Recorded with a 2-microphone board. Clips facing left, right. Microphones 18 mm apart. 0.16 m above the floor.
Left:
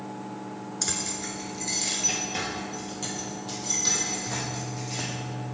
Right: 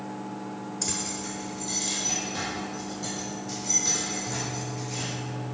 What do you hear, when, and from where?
0.8 s keys jangling: 25° left (ahead or behind), 1.4 m; by 5.1 s 80° left, 5.5 m